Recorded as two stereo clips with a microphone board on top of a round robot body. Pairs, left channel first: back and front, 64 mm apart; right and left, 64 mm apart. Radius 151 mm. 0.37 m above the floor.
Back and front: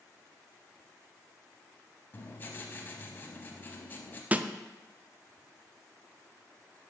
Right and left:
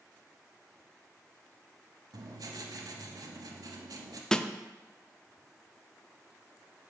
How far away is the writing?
About 0.7 m.